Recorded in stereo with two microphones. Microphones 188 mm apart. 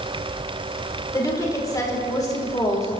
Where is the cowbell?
No cowbell in this recording.